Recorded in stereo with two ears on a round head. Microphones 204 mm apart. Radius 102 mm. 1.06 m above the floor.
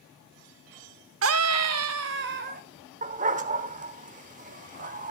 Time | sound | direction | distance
1.2 | a scream | 60° right (ahead or behind) | 0.7 m
3.0 | a dog barking | 35° right (ahead or behind) | 1.0 m